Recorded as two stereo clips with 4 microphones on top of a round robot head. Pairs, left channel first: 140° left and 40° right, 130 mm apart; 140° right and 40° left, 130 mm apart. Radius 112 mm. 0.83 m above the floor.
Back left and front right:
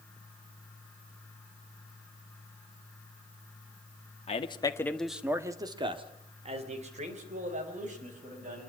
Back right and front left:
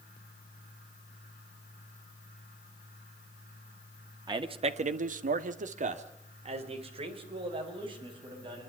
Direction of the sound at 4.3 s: 100° left.